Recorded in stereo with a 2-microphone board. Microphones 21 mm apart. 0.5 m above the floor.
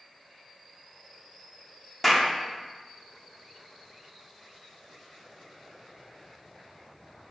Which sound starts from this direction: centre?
A clap, at 2.0 s.